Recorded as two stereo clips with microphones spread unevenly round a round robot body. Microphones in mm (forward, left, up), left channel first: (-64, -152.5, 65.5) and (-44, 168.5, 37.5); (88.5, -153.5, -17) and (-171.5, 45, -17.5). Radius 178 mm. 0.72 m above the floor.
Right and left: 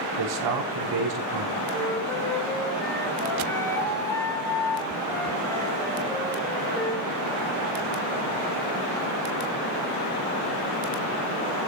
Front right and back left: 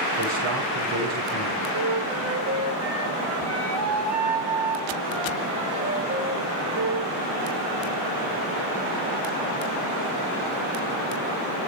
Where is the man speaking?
85° left, 6.5 m.